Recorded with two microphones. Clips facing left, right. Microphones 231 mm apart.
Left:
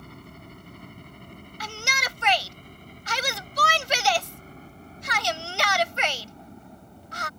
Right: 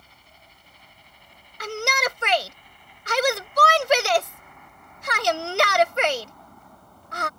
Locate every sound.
0.0 s a helicopter: 60° left (ahead or behind); by 7.4 s 20° left (ahead or behind)
1.6 s a shout: 60° right (ahead or behind)